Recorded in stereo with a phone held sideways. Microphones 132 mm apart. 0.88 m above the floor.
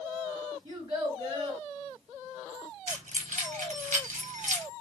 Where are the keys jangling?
65° right (ahead or behind), 0.7 m.